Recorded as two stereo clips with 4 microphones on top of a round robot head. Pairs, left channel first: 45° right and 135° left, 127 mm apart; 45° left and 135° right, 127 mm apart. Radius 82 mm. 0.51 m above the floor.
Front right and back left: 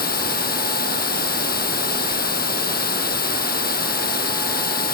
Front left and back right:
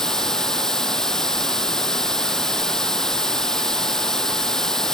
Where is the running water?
40° right.